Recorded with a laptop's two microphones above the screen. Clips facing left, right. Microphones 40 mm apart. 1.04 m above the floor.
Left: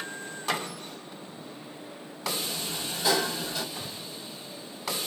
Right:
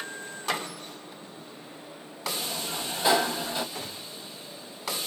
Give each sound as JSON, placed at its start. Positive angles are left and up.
{"t": 2.4, "sound": "a sliding door", "side_deg": -30, "distance_m": 2.0}
{"t": 3.8, "sound": "a gunshot", "side_deg": -65, "distance_m": 3.0}